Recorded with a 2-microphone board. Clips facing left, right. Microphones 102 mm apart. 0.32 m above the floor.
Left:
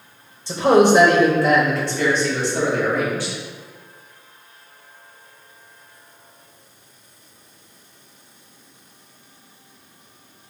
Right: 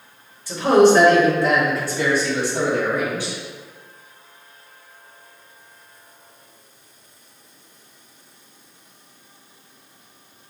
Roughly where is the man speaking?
Left.